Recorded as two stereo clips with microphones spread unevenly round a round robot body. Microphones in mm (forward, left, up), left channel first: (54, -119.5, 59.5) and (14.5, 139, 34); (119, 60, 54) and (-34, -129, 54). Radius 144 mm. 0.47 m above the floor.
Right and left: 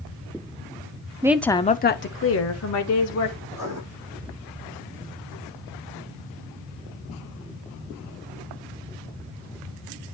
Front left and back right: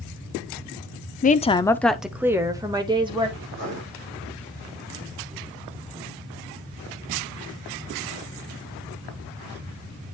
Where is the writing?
Straight behind, 4 m.